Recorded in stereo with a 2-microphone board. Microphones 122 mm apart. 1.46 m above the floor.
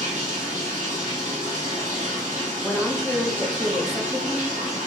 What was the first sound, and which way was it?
Running water, 85° right.